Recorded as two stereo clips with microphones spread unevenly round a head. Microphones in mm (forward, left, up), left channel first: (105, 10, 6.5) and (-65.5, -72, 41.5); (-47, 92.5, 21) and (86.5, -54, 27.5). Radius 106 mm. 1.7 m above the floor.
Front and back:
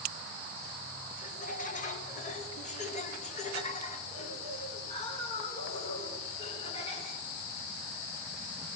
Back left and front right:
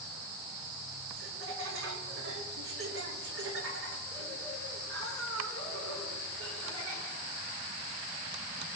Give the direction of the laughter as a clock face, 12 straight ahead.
1 o'clock.